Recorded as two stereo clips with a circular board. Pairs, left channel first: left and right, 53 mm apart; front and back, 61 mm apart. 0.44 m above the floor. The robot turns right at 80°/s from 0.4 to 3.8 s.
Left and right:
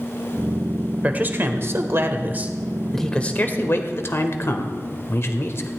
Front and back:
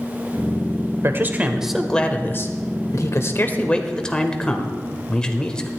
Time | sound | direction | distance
1.0 | a man speaking | 150° right | 1.4 m